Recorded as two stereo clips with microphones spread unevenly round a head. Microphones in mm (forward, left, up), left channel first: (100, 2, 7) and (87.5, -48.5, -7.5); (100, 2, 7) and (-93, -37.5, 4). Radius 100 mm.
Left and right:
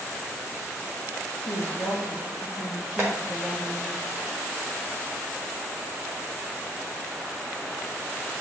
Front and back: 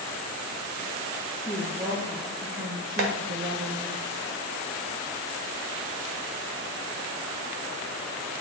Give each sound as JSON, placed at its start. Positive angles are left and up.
{"t": 1.4, "sound": "a woman speaking", "azimuth_deg": 95, "distance_m": 2.0}
{"t": 3.0, "sound": "tapping", "azimuth_deg": 175, "distance_m": 1.5}